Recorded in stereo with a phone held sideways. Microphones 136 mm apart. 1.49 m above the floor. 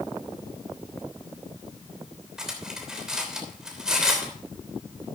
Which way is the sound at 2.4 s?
5° right (ahead or behind).